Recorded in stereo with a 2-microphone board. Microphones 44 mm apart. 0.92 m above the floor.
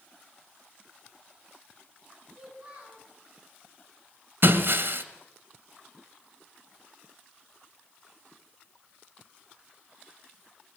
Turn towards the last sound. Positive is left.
turn(degrees=-60)  # may be behind; listen again after turning